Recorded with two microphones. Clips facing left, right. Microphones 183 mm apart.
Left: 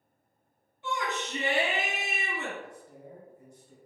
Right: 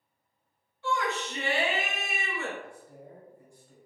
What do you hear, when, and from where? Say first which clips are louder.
0.8 s a shout: right 3 dB; 20° left (ahead or behind), 1.2 m
2.6 s a man speaking: even; 20° left (ahead or behind), 1.4 m